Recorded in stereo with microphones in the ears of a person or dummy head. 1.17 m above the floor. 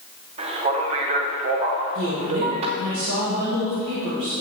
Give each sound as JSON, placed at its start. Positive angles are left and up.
{"t": 0.4, "sound": "a man speaking", "side_deg": -30, "distance_m": 0.6}
{"t": 1.9, "sound": "a woman speaking", "side_deg": -65, "distance_m": 1.6}